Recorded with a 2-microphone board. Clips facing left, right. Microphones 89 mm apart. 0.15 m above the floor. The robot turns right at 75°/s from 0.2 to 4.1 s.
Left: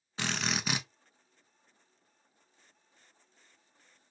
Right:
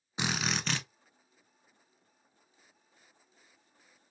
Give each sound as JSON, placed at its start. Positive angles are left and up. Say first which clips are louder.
{"t": 0.2, "sound": "a drill", "louder": "right 1 dB", "azimuth_deg": -20, "distance_m": 0.5}